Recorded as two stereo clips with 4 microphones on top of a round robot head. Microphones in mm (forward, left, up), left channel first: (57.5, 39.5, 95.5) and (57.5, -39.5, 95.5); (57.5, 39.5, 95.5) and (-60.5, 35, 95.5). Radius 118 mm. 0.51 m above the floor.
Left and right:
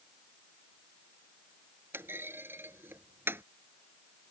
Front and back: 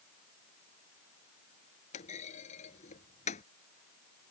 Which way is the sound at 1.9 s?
30° right.